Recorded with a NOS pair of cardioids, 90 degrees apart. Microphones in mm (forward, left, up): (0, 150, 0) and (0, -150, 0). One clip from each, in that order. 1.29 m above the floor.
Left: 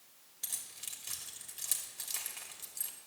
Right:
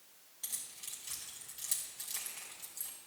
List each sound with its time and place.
0.4 s keys jangling: 30° left, 2.5 m